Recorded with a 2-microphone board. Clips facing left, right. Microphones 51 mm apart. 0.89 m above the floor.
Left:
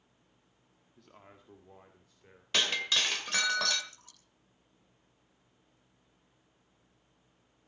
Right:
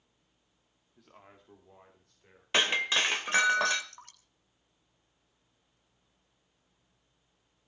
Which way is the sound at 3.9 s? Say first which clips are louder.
Right 7 dB; 60° right (ahead or behind).